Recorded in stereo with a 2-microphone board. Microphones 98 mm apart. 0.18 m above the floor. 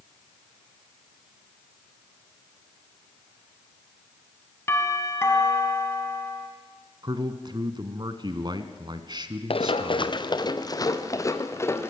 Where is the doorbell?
25° left (ahead or behind), 2 m.